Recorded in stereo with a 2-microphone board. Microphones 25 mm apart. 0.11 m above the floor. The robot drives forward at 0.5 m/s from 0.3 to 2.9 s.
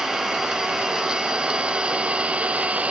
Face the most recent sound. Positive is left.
turn(degrees=-75)  # may be behind; listen again after turning